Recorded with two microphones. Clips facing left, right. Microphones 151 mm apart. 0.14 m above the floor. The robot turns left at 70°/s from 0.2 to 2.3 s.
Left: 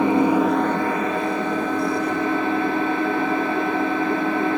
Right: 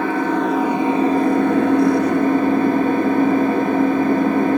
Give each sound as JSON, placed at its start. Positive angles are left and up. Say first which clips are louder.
{"t": 0.0, "sound": "an engine running", "louder": "left 2 dB", "azimuth_deg": 20, "distance_m": 0.8}